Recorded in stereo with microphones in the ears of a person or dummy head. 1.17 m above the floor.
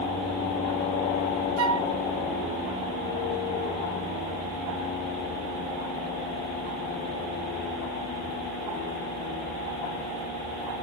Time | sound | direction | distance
1.6 | a flute | 85° right | 4 m